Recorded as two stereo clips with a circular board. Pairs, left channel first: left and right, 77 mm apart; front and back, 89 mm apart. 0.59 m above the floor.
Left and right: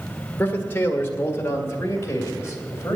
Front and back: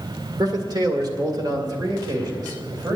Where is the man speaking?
150° left, 1.7 m; by 3.0 s 140° left, 3 m.